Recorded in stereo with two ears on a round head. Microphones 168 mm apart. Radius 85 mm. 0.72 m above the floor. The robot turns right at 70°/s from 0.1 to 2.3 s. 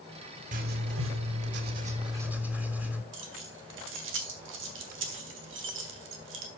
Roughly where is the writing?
Behind right.